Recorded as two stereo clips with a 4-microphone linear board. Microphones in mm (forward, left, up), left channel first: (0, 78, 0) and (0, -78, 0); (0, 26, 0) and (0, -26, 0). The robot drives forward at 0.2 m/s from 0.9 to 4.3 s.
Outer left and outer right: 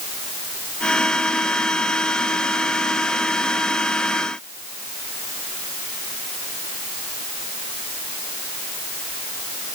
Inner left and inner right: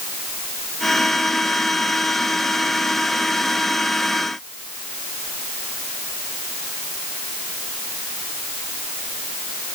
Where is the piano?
No piano in this recording.